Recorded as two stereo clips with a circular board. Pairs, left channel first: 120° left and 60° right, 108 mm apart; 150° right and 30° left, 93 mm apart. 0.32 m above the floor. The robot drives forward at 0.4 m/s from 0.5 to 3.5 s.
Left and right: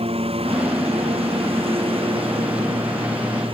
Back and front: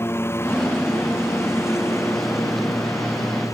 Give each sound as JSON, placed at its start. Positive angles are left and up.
{"t": 0.0, "sound": "a lawn mower", "azimuth_deg": -85}